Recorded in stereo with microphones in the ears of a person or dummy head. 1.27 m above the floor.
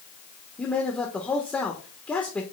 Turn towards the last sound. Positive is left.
turn(degrees=5)  # may be behind; listen again after turning